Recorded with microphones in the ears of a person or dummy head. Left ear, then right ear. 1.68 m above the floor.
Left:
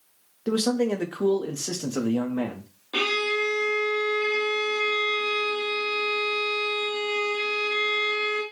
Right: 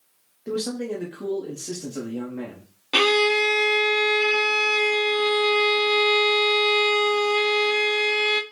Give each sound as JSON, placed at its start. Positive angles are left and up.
{"t": 0.5, "sound": "a man speaking", "side_deg": 35, "distance_m": 0.5}
{"t": 2.9, "sound": "a violin", "side_deg": -80, "distance_m": 0.6}